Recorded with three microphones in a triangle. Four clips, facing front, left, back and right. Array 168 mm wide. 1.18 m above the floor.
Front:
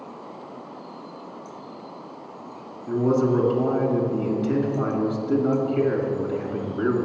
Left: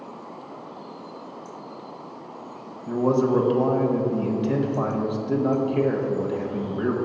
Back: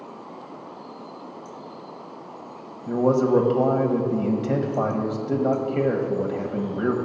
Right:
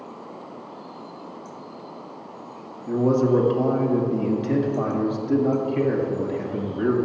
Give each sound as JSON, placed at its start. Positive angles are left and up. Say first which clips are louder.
{"t": 2.9, "sound": "a man speaking", "louder": "right 1 dB, back 1 dB", "azimuth_deg": 160, "distance_m": 1.3}